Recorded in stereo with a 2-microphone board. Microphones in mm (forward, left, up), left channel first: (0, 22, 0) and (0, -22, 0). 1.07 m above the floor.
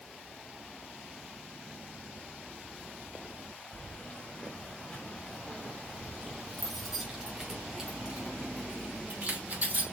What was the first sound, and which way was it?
Keys jangling, 35° left (ahead or behind).